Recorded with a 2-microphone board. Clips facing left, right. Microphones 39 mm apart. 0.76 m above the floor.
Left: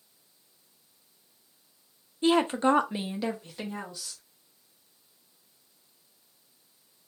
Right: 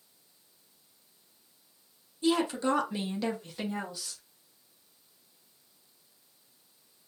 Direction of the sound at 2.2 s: 40° left (ahead or behind).